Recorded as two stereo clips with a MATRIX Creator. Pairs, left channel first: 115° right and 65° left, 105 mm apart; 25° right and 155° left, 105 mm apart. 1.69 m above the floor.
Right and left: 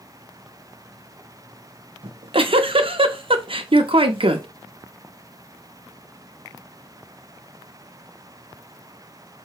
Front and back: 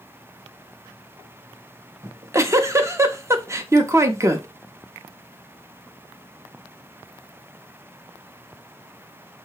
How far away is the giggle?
About 0.6 m.